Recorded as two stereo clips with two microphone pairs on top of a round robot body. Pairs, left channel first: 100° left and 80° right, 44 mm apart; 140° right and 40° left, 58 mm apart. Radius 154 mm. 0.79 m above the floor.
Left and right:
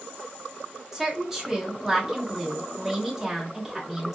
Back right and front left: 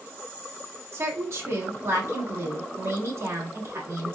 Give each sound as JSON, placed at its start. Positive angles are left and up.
{"t": 0.9, "sound": "a woman speaking", "azimuth_deg": 0, "distance_m": 2.0}